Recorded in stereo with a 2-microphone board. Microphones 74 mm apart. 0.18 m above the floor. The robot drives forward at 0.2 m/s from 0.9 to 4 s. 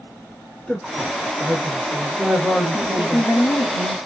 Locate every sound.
0.7 s a woman speaking: 10° left (ahead or behind), 1.4 m
2.7 s a woman speaking: 55° left (ahead or behind), 2.5 m